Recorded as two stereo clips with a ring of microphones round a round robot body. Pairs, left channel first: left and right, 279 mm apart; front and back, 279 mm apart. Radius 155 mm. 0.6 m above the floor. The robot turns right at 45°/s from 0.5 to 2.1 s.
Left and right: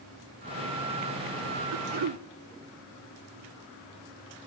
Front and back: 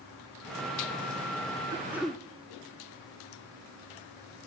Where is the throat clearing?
105° right, 1.1 m; by 2.2 s 90° right, 1.1 m.